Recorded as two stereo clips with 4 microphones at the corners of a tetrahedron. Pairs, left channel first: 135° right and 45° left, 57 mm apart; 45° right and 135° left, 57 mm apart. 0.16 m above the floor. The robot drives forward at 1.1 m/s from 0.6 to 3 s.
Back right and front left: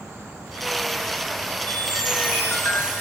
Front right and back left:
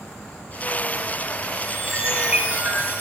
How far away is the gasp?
I don't hear a gasp.